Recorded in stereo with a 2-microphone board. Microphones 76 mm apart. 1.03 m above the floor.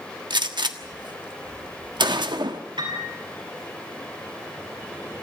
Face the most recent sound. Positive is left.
turn(degrees=-85)